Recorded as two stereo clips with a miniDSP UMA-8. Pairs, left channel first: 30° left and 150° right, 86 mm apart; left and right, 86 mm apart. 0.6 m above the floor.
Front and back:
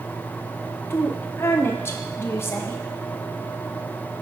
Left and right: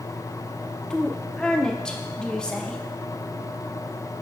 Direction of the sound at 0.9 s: 20° left.